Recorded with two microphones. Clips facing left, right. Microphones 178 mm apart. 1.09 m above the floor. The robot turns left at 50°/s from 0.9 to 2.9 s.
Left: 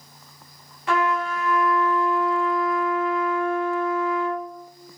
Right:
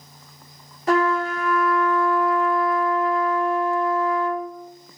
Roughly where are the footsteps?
I don't hear footsteps.